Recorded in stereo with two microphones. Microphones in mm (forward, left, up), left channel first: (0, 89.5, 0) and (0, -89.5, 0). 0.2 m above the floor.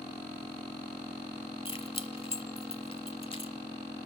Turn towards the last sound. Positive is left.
turn(degrees=30)  # may be behind; listen again after turning